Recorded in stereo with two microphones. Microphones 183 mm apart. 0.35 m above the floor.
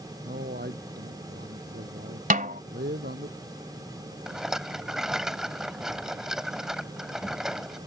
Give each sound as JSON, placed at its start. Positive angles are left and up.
{"t": 0.2, "sound": "a man speaking", "side_deg": -60}
{"t": 2.3, "sound": "a snare drum", "side_deg": -50}
{"t": 4.3, "sound": "a rattle", "side_deg": 0}